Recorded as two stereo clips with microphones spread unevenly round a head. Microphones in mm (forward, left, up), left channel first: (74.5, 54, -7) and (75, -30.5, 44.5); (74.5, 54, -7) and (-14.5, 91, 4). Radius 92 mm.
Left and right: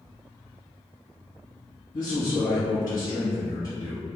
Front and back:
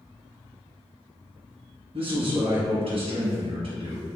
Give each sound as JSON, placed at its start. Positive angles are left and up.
{"t": 1.9, "sound": "a man speaking", "azimuth_deg": 140, "distance_m": 1.3}